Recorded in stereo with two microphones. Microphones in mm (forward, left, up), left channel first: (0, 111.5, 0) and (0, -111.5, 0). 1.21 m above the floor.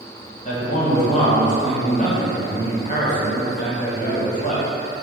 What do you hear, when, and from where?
0.5 s a man speaking: 35° left (ahead or behind), 0.9 m